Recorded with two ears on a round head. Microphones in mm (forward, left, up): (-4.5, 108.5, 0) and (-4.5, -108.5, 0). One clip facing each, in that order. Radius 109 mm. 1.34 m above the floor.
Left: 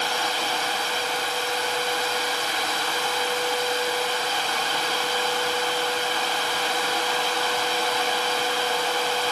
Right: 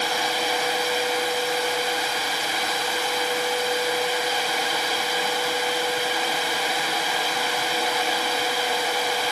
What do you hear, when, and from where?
Only background noise.